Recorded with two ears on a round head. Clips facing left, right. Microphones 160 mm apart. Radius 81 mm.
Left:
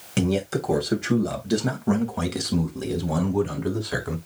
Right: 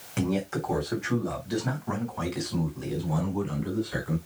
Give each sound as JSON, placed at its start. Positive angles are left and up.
{"t": 0.2, "sound": "a man speaking", "side_deg": 40, "distance_m": 3.5}